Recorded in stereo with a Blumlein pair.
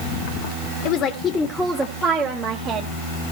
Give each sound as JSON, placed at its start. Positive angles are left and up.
{"t": 0.8, "sound": "a woman speaking", "azimuth_deg": 40, "distance_m": 1.1}